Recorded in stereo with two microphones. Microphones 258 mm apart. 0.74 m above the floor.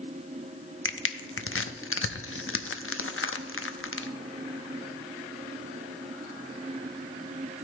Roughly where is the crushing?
Left.